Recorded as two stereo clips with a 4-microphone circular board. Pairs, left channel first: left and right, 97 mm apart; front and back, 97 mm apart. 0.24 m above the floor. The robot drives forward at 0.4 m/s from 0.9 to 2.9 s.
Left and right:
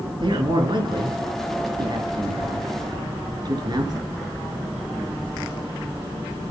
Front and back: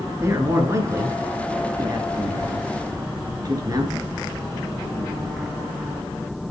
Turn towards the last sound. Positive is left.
turn(degrees=-130)